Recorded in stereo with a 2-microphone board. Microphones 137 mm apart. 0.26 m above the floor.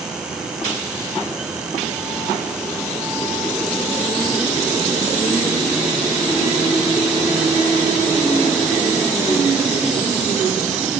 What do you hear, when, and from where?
Only background noise.